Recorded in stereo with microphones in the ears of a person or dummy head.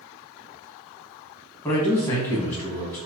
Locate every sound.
1.6 s a man speaking: 15° left (ahead or behind), 1.3 m